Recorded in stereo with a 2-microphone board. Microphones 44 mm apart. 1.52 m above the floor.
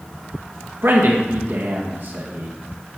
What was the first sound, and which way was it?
A man speaking, 65° right (ahead or behind).